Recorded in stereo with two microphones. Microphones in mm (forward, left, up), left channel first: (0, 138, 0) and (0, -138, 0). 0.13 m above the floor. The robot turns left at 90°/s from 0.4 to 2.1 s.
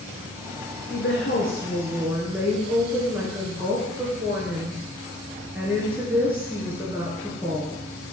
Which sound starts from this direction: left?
A woman speaking, at 0.9 s.